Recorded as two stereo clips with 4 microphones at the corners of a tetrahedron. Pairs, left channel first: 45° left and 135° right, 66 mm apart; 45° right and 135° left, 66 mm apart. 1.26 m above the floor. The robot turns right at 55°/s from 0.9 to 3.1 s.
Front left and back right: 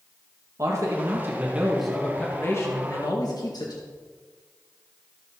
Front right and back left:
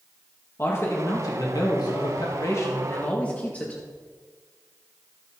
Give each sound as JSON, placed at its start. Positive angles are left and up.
{"t": 0.6, "sound": "a man speaking", "azimuth_deg": -95, "distance_m": 1.9}